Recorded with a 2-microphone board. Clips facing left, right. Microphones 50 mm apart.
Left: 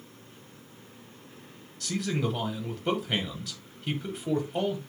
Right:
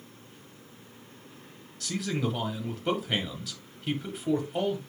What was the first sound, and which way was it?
A man speaking, centre (ahead or behind).